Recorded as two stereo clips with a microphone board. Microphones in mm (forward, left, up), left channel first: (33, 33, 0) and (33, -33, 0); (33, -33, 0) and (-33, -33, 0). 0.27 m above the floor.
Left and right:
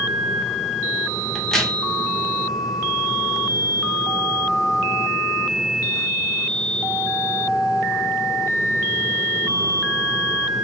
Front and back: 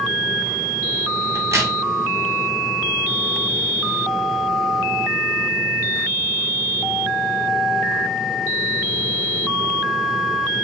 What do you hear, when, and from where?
1.4 s a crack: 175° left, 0.8 m